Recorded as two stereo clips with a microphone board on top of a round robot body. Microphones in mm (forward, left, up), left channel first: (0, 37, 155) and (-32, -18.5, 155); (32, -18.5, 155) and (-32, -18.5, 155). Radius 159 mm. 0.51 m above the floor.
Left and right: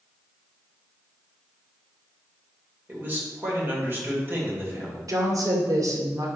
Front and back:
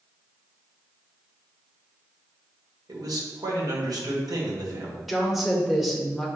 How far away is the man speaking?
About 2.5 m.